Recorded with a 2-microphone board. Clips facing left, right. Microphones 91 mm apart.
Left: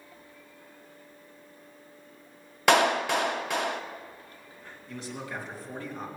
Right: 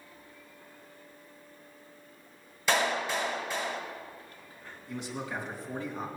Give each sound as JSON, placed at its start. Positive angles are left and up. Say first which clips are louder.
{"t": 2.7, "sound": "a clap", "louder": "left 6 dB", "side_deg": 75, "distance_m": 0.7}
{"t": 4.9, "sound": "a man speaking", "louder": "right 1 dB", "side_deg": 0, "distance_m": 3.5}